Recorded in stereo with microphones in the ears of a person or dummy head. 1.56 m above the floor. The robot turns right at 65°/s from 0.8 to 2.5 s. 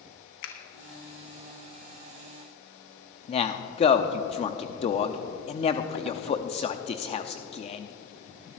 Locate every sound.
0.4 s a finger snap: 55° left (ahead or behind), 1.4 m
3.3 s a man speaking: 30° left (ahead or behind), 0.7 m